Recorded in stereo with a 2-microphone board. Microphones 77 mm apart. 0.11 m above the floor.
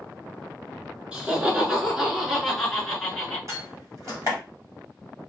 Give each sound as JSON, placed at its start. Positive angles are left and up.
{"t": 1.1, "sound": "laughter", "side_deg": -15, "distance_m": 1.4}
{"t": 3.5, "sound": "a door slam", "side_deg": -45, "distance_m": 1.6}